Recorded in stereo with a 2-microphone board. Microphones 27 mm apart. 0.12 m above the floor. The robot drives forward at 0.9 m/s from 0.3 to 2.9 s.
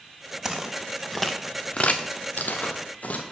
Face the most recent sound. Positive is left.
turn(degrees=60)  # may be behind; listen again after turning